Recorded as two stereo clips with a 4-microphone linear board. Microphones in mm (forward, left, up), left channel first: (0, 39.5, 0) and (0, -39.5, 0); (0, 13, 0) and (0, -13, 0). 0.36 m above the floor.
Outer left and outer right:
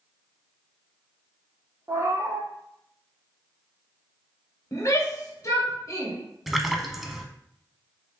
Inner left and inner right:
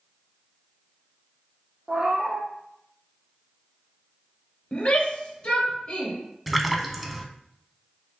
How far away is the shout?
About 1.2 m.